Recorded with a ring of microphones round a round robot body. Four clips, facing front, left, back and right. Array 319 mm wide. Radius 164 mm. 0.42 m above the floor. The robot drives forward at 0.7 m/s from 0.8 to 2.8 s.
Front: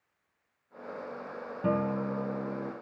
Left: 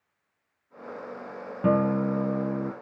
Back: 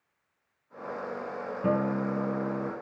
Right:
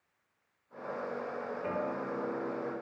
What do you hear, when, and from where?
1.6 s a guitar: 90° left, 1.9 m; by 2.7 s 115° left, 2 m